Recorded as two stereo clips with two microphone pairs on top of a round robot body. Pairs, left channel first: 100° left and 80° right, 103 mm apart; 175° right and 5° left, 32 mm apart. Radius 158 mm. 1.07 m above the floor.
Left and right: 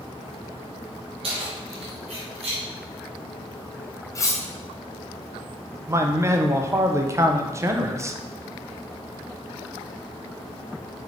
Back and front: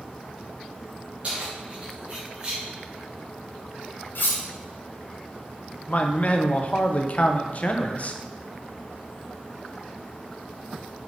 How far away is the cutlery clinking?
About 0.7 m.